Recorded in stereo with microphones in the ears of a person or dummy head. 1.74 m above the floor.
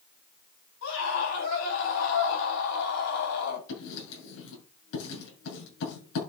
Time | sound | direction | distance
0.8 | a scream | 75° left (ahead or behind) | 8 m
3.7 | writing | 70° left (ahead or behind) | 8 m